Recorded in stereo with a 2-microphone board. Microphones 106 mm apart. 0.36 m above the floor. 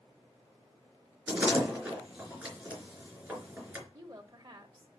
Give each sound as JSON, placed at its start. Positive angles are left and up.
{"t": 1.3, "sound": "a door slam", "side_deg": -15, "distance_m": 4.0}
{"t": 3.9, "sound": "a woman speaking", "side_deg": -35, "distance_m": 1.3}